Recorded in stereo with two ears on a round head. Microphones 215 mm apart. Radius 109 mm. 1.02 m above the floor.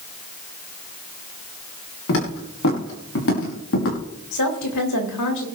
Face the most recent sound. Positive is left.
turn(degrees=85)